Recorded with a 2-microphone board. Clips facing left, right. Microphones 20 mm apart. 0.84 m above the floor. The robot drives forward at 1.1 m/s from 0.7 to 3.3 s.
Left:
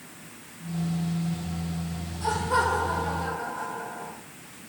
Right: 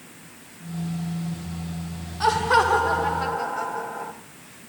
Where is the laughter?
75° right (ahead or behind), 2.0 m; by 4.1 s 50° right (ahead or behind), 2.5 m.